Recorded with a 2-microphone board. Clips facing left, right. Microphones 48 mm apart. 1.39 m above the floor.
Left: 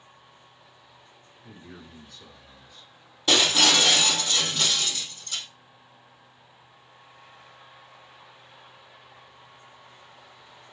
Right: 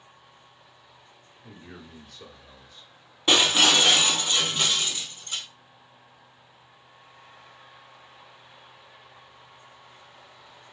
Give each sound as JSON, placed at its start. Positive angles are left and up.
{"t": 1.4, "sound": "a man speaking", "side_deg": -65, "distance_m": 0.8}
{"t": 3.3, "sound": "breaking glass", "side_deg": -25, "distance_m": 2.0}